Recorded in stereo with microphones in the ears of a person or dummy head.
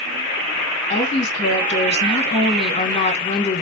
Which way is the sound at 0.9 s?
40° left (ahead or behind).